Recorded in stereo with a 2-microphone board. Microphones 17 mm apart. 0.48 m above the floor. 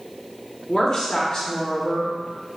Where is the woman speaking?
50° left (ahead or behind), 1.0 m.